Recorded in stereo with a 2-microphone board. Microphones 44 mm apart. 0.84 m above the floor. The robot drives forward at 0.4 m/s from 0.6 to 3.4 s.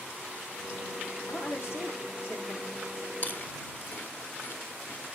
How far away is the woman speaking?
About 2.5 m.